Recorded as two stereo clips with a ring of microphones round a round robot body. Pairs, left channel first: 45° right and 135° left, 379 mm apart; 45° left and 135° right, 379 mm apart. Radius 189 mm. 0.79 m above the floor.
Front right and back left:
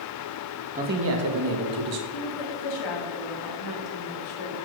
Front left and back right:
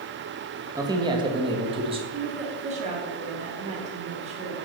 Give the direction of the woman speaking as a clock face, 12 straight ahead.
2 o'clock.